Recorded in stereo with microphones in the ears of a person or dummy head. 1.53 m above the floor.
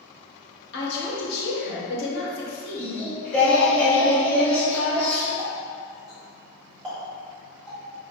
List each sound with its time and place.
0.7 s a woman speaking: 70° left (ahead or behind), 1.0 m
2.8 s singing: 5° left (ahead or behind), 0.7 m
5.4 s a running tap: 5° right (ahead or behind), 1.4 m